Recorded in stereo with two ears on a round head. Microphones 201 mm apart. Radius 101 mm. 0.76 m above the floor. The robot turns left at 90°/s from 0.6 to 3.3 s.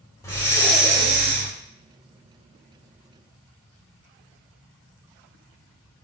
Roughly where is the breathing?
Ahead.